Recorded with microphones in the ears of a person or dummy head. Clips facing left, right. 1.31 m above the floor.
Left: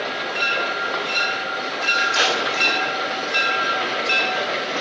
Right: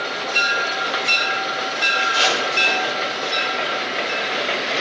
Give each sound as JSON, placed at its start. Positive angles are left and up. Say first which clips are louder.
{"t": 2.0, "sound": "tape being pulled", "louder": "right 1 dB", "side_deg": 20, "distance_m": 6.0}